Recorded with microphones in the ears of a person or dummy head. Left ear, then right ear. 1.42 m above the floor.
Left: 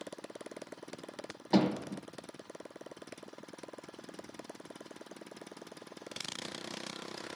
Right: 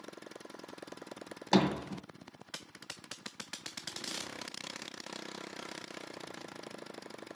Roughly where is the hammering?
Right.